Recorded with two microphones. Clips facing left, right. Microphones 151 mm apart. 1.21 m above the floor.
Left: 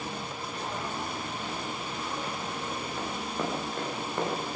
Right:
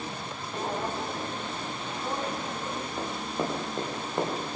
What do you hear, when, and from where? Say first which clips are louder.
0.5 s footsteps: right 6 dB; 35° right (ahead or behind), 2 m; by 2.9 s 65° right (ahead or behind), 3 m
3.0 s running footsteps: right 2 dB; 20° right (ahead or behind), 8.5 m; by 4.6 s 15° right (ahead or behind), 10 m